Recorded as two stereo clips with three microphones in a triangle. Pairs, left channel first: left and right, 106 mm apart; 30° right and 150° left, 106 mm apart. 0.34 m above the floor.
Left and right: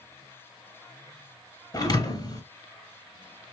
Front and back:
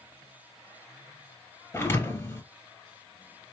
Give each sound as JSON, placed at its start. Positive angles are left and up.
{"t": 1.7, "sound": "a thud", "azimuth_deg": 40, "distance_m": 1.4}